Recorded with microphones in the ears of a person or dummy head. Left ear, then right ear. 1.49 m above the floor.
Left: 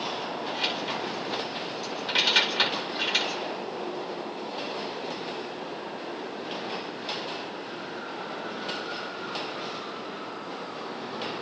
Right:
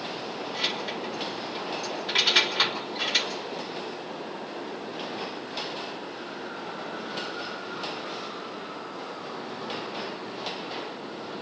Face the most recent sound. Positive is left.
turn(degrees=5)  # may be behind; listen again after turning